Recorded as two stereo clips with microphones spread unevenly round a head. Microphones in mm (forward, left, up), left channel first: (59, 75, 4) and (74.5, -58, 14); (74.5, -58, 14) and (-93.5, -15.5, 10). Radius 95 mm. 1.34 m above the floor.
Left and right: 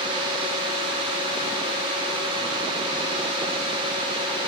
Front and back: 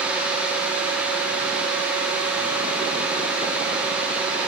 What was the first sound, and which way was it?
Only background noise.